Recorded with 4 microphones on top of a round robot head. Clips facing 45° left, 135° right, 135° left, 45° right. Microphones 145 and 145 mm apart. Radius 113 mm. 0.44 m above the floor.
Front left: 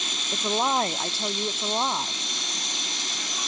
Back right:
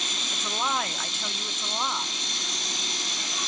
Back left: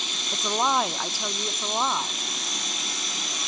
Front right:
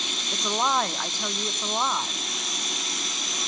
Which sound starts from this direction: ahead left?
A woman speaking, at 0.3 s.